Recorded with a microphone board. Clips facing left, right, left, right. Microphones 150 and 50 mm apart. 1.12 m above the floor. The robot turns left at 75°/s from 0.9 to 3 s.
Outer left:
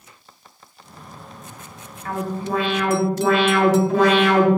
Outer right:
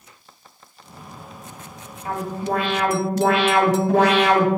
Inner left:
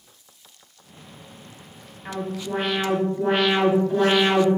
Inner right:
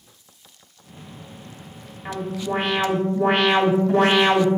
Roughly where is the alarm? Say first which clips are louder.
Even, inner right 2 dB; ahead right.